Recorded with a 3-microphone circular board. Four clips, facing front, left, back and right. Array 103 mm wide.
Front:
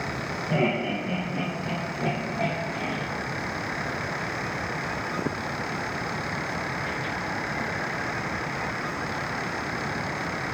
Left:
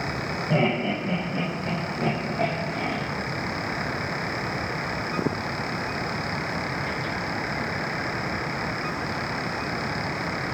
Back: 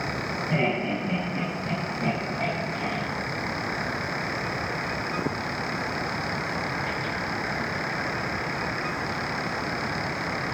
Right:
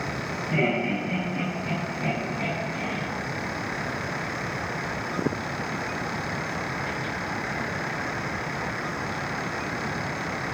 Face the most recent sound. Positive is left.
turn(degrees=75)